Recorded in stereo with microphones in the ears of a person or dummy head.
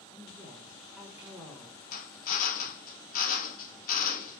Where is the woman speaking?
5° right (ahead or behind), 1.2 m.